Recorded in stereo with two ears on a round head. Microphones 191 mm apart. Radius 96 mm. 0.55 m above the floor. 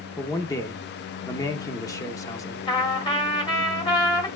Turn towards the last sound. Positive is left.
turn(degrees=20)  # may be behind; listen again after turning